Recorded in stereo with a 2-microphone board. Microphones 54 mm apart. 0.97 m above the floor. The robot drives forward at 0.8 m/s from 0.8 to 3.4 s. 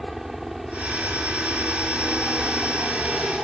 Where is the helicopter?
5° right (ahead or behind); by 3.4 s centre (ahead or behind).